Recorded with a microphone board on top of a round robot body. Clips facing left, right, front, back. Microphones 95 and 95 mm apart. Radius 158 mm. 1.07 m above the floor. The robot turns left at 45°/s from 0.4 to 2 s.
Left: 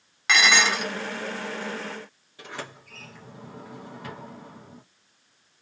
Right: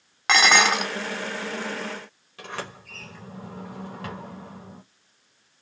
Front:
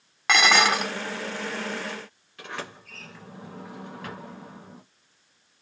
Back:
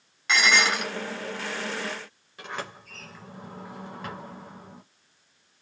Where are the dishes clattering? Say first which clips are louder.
Right 3 dB, front 3 dB; 40° right, 0.6 m; by 0.9 s 60° right, 0.6 m.